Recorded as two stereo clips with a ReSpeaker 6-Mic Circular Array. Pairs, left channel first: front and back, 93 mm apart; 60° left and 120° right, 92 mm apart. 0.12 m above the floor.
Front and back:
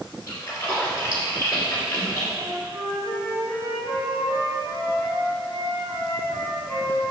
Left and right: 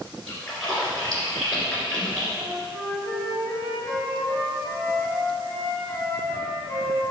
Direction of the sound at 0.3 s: 25° right.